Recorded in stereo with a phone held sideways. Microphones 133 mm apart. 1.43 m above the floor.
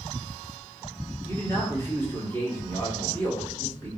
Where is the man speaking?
20° left (ahead or behind), 1.9 m.